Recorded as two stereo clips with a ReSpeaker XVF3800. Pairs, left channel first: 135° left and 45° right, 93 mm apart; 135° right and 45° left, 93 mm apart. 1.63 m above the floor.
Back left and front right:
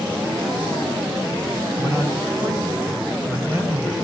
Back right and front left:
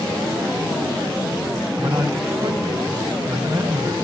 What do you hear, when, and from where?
1.8 s a man speaking: 15° left, 6 m